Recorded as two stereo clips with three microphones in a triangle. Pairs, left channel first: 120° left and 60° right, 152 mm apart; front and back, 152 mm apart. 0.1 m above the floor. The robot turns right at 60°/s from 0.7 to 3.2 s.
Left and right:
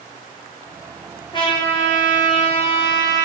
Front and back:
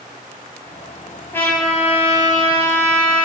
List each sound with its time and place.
1.3 s a trumpet: 70° left, 0.6 m; by 3.3 s straight behind, 0.6 m